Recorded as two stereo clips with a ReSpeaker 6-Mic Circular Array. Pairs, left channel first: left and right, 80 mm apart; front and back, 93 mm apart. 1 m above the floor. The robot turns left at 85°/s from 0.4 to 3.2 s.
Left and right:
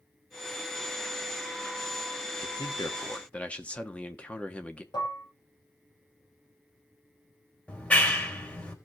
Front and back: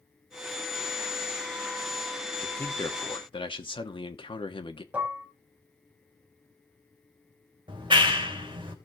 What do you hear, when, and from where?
2.4 s a man speaking: 85° left, 1.4 m; by 4.8 s 15° left, 1.4 m
4.9 s dishes clattering: 105° left, 4 m
7.7 s a clap: 160° left, 3 m